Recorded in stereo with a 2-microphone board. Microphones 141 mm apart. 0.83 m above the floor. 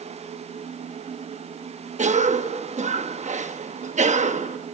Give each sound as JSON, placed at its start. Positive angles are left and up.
{"t": 2.0, "sound": "a cough", "side_deg": -55, "distance_m": 1.0}